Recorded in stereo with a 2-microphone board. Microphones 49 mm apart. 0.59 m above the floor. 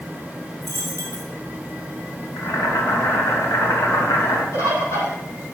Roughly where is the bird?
Left.